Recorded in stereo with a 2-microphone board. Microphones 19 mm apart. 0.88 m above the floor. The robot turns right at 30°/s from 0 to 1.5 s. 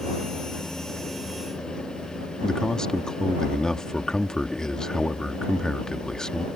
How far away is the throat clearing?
I don't hear throat clearing.